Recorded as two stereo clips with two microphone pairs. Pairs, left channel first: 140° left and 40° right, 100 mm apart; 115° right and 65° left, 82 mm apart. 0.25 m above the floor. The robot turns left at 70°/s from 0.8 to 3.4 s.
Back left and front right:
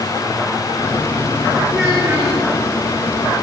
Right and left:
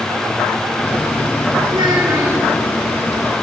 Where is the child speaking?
50° left, 2.5 m; by 2.4 s 5° right, 2.5 m.